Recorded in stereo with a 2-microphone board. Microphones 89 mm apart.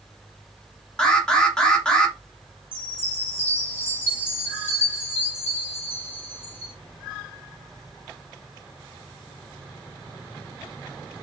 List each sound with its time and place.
1.0 s an alarm: 10° left (ahead or behind), 1.2 m
2.7 s a chime: 20° left (ahead or behind), 1.4 m